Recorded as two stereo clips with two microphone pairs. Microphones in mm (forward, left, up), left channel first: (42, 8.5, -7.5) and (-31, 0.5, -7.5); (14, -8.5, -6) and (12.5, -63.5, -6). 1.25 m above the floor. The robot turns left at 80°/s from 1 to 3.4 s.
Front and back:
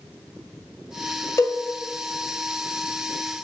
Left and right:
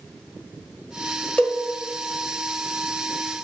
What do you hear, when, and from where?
1.4 s a cowbell: 30° left, 1.3 m; by 1.6 s 10° left, 1.3 m